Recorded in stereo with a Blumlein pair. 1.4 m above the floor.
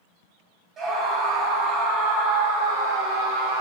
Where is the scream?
25° right, 8 m; by 3.6 s 40° right, 8 m.